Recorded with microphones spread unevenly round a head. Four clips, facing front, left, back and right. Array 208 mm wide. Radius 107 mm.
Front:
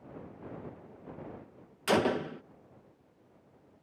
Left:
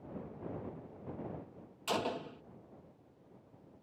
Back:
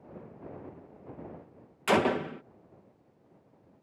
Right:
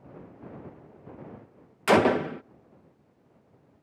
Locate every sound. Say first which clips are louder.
1.9 s a gunshot: right 15 dB, back 2 dB; 90° right